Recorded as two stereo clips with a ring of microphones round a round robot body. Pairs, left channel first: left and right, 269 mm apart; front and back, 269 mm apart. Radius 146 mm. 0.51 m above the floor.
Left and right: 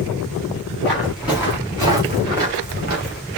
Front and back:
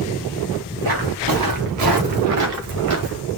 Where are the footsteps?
Straight behind, 3.5 m; by 3.2 s 150° right, 3 m.